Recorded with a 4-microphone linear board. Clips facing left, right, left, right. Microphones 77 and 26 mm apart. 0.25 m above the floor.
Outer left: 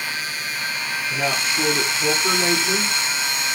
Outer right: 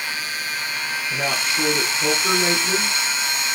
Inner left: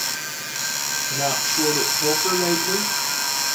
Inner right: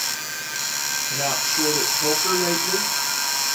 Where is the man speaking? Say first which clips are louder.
Outer left 1 dB, inner left 1 dB; 10° right (ahead or behind), 4 m.